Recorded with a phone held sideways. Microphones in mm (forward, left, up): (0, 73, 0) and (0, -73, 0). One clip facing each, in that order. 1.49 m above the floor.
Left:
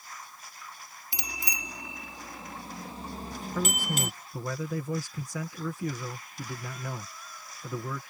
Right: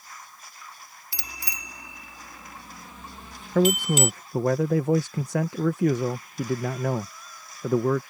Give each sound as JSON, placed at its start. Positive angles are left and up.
{"t": 1.1, "sound": "a bicycle bell", "side_deg": 20}
{"t": 3.5, "sound": "a man speaking", "side_deg": -70}